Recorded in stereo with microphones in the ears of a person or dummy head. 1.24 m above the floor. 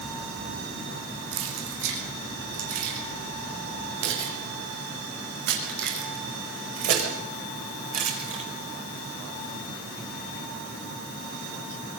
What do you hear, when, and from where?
1.3 s keys jangling: 85° right, 8 m; by 8.4 s 40° right (ahead or behind), 4 m